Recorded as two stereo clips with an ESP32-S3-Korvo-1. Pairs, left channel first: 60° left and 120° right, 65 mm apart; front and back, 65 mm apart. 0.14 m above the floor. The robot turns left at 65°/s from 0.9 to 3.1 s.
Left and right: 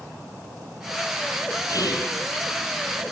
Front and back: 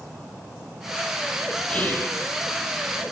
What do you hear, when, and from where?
1.7 s whispering: 75° left, 5 m; by 2.1 s 45° left, 5 m